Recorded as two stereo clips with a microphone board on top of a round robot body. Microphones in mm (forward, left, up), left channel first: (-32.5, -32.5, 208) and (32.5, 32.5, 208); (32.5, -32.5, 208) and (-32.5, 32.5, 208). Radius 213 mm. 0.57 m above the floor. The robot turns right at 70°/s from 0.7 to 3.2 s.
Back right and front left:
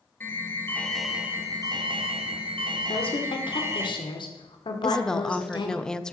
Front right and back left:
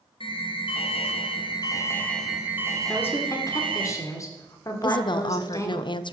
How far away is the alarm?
About 2.5 m.